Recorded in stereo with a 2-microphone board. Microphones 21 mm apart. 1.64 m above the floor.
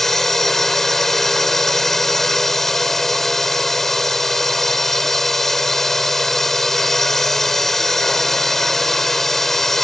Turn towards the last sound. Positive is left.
turn(degrees=15)  # may be behind; listen again after turning